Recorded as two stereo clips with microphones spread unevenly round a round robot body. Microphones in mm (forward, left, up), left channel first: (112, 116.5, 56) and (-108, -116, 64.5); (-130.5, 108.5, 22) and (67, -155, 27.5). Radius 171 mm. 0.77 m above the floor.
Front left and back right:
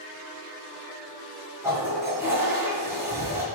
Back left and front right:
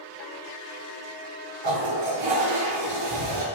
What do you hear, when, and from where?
1.6 s a toilet flushing: 50° right, 3 m